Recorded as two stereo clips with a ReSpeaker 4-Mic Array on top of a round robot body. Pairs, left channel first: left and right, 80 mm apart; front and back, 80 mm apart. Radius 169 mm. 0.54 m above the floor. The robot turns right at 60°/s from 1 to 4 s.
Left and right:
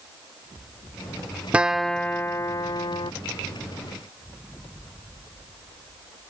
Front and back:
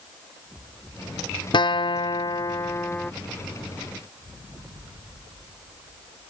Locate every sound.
1.5 s a guitar: 15° right; by 3.1 s 80° left